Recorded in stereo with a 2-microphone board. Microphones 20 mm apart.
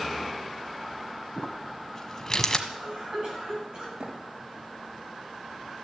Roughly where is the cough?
Right.